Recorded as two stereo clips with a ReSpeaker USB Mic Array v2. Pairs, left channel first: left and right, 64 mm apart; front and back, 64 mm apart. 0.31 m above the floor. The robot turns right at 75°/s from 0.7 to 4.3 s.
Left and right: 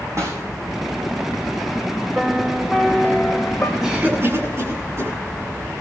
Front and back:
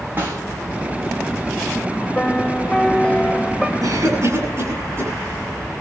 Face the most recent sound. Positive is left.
turn(degrees=-140)